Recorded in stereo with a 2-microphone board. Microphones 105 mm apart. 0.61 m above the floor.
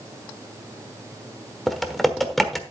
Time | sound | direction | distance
1.7 | typing on a keyboard | centre (ahead or behind) | 1.2 m